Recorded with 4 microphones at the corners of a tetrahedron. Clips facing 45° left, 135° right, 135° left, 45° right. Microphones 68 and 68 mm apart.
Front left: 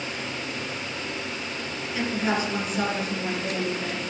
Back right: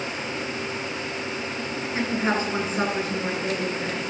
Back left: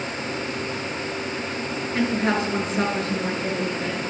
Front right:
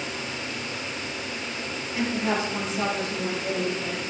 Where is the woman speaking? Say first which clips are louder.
Back right 1 dB, back left 3 dB; 165° left, 5 m.